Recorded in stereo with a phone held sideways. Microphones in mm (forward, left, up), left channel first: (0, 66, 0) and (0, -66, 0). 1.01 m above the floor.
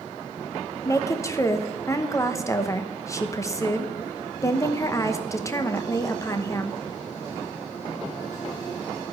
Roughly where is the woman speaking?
Left.